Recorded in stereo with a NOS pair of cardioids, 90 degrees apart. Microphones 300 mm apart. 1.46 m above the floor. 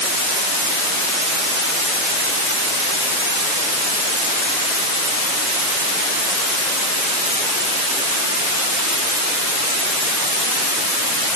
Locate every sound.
Only background noise.